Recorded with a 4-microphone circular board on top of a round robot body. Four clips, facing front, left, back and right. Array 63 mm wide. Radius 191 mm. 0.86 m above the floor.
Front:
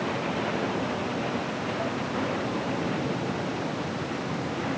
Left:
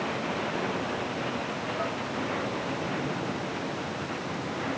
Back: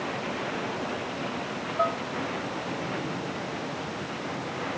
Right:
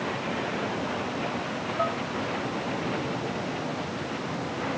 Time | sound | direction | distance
1.8 | dishes clattering | 155° right | ?